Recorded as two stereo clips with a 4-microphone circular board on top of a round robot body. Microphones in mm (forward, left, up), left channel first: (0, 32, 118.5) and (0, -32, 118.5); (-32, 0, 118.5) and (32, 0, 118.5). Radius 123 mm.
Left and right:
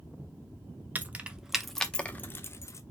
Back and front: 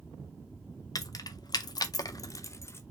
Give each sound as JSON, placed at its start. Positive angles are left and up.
{"t": 0.9, "sound": "keys jangling", "azimuth_deg": -155, "distance_m": 0.8}